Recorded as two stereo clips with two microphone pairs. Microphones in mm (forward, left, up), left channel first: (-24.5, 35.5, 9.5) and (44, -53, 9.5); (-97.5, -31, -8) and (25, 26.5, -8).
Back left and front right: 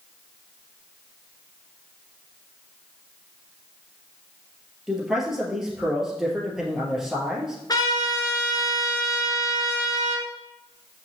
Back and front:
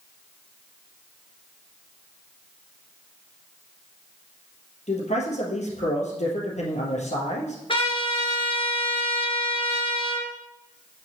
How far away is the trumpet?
About 2 m.